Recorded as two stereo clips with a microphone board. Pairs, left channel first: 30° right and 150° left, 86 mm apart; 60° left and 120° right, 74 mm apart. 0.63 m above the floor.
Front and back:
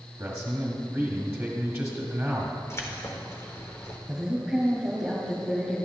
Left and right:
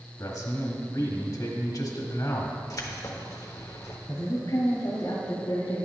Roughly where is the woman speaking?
Left.